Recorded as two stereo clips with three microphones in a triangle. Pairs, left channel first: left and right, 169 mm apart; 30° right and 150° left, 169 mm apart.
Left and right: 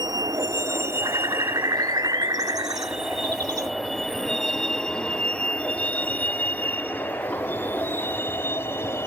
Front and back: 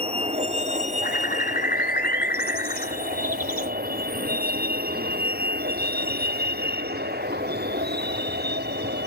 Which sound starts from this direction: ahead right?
A bird, at 1.0 s.